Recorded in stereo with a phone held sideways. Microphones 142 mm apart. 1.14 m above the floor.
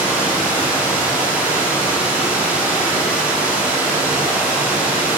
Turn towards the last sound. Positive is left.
turn(degrees=-10)  # may be behind; listen again after turning